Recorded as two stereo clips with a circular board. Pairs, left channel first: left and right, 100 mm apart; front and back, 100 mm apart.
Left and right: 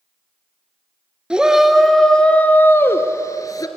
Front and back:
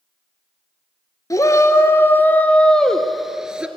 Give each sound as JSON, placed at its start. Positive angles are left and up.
{"t": 1.3, "sound": "a shout", "azimuth_deg": -15, "distance_m": 1.5}